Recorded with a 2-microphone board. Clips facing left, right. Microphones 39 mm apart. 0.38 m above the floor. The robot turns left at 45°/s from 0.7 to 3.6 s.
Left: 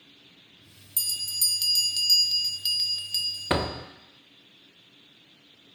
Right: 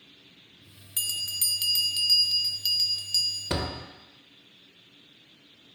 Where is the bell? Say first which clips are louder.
Even; 110° right, 0.7 m; by 3.5 s 135° left, 0.7 m.